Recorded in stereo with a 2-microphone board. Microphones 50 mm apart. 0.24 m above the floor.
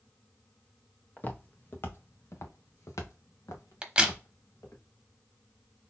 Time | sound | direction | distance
1.2 | footsteps | 30° left (ahead or behind) | 1.5 m
3.8 | a crack | 20° right (ahead or behind) | 0.9 m